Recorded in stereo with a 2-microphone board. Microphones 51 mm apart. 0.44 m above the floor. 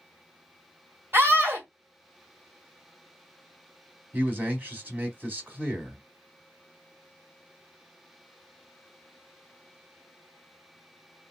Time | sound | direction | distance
1.1 | a scream | 40° right (ahead or behind) | 1.6 m
4.1 | a man speaking | 35° right (ahead or behind) | 1.0 m